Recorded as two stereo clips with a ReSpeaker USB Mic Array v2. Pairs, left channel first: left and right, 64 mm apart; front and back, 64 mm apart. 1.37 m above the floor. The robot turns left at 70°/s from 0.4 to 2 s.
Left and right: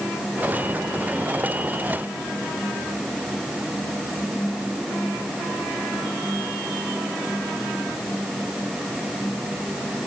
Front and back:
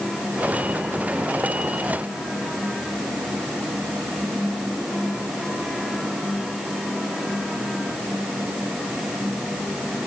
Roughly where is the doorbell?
I don't hear a doorbell.